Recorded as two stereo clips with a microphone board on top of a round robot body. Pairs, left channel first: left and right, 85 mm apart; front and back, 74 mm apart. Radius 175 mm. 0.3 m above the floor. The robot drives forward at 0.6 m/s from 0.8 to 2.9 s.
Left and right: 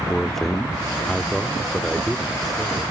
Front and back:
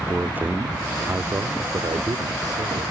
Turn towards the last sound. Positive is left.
turn(degrees=180)